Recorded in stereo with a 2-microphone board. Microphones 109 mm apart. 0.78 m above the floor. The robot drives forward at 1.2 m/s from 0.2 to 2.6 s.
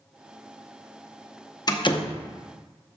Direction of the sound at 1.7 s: 35° left (ahead or behind).